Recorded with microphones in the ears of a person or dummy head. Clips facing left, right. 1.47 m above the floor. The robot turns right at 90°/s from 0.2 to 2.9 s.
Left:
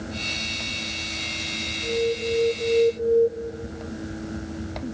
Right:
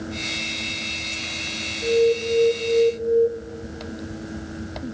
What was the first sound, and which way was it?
An alarm, 95° right.